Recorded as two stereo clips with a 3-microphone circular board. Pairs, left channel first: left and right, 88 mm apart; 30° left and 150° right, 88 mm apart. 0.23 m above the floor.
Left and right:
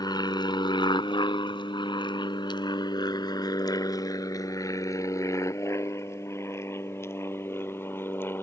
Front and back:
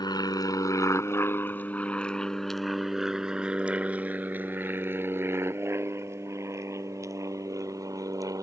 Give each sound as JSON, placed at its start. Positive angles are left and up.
{"t": 0.0, "sound": "an aircraft", "azimuth_deg": 60}